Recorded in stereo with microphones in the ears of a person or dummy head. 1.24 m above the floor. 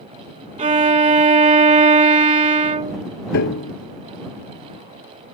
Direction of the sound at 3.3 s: 55° left (ahead or behind).